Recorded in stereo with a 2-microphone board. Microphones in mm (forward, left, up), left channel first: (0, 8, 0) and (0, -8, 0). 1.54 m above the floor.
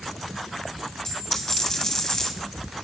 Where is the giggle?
I don't hear a giggle.